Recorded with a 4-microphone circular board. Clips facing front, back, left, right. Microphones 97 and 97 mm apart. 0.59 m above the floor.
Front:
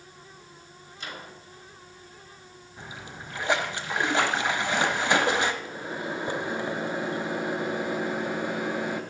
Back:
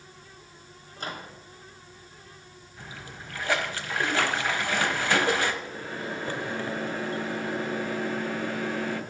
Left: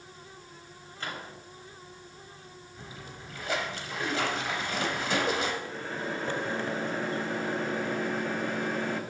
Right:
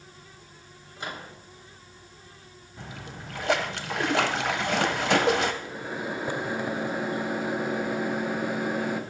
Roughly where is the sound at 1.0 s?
Behind right.